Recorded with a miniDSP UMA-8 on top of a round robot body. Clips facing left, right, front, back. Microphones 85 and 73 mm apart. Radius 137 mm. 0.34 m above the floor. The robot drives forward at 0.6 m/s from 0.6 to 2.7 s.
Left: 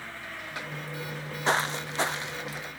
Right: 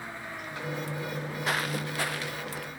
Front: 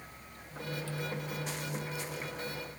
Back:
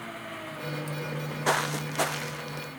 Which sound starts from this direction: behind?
An engine running, at 0.0 s.